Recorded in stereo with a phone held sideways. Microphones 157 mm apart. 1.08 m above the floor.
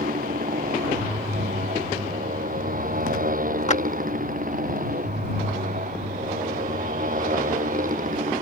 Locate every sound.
0.0 s a motorcycle: 60° right (ahead or behind); by 8.4 s 55° right (ahead or behind)
3.7 s a clap: 45° left (ahead or behind)